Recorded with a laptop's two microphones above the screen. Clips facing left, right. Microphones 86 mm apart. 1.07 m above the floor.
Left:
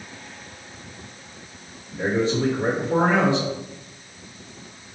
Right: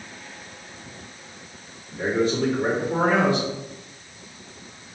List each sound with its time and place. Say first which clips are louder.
1.9 s a man speaking: even; 20° left (ahead or behind), 1.8 m